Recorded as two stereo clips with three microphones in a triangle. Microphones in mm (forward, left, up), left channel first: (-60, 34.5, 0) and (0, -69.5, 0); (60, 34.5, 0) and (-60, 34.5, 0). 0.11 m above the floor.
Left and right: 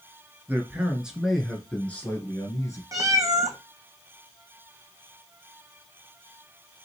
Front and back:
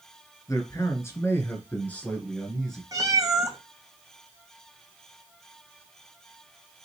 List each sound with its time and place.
0.5 s a man speaking: 10° right, 1.4 m; by 2.8 s 85° left, 1.5 m
2.9 s a cat meowing: 120° right, 1.0 m